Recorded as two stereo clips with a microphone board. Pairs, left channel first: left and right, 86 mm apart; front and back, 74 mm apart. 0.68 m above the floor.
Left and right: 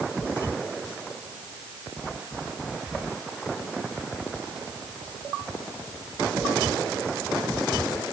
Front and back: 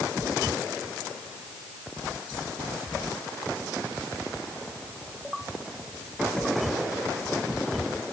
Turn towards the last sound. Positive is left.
No sound to turn to.